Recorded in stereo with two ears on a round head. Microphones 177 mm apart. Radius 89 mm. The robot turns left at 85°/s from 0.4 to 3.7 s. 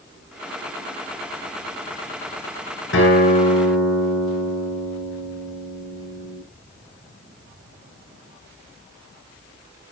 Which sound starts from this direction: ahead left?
A guitar, at 2.9 s.